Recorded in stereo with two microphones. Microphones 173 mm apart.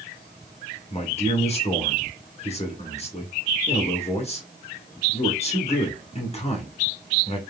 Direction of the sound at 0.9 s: 35° left (ahead or behind).